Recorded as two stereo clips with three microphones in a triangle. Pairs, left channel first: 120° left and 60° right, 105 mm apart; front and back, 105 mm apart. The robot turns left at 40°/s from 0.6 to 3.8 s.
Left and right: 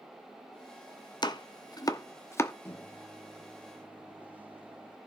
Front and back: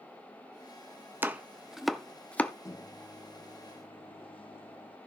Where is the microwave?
55° left, 0.7 m; by 5.0 s 10° left, 0.7 m.